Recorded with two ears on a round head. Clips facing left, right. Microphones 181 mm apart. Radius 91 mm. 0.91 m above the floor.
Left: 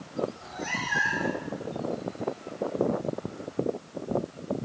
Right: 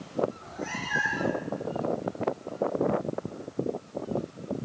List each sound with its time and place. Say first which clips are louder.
0.3 s a cat meowing: even; 55° left (ahead or behind), 3.5 m; by 1.4 s 50° left (ahead or behind), 2.5 m